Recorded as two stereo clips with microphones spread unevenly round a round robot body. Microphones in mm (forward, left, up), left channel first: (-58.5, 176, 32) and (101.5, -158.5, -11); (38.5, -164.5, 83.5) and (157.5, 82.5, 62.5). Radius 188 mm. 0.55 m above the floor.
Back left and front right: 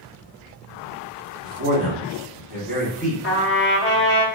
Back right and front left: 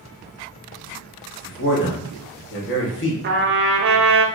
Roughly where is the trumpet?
Ahead left.